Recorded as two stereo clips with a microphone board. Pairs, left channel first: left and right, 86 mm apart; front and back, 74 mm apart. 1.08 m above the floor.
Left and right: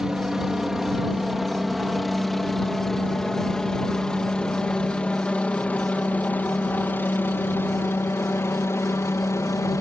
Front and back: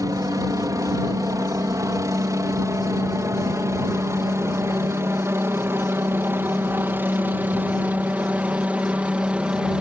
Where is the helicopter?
170° right; by 9.8 s 110° left.